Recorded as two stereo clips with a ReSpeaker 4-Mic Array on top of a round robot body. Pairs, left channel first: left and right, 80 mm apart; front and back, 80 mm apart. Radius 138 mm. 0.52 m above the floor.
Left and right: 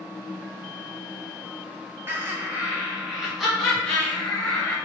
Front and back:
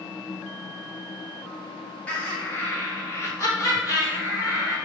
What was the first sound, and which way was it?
Laughter, 55° right.